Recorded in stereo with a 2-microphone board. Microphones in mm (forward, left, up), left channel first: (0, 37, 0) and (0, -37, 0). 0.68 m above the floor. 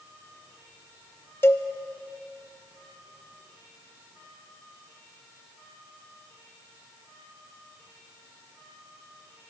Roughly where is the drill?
No drill in this recording.